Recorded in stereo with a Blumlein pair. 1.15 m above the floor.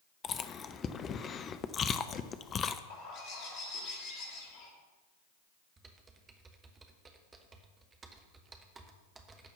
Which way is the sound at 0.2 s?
25° left.